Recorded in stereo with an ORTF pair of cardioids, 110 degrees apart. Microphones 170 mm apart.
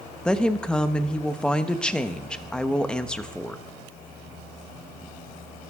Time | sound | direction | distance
0.2 | a woman speaking | 5° left | 1.0 m